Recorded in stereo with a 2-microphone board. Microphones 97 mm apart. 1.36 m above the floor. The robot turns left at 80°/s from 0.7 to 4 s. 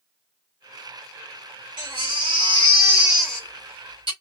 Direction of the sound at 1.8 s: 65° right.